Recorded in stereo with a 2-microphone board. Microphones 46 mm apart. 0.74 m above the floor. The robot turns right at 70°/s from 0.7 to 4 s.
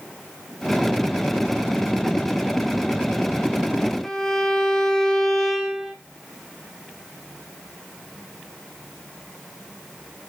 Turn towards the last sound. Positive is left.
turn(degrees=10)  # may be behind; listen again after turning